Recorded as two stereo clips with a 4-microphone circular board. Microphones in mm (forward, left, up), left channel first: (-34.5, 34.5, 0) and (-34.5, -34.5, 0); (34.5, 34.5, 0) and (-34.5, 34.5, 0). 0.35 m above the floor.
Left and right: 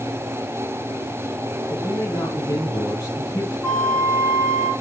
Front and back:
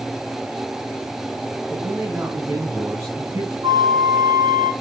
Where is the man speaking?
125° left, 3.5 m.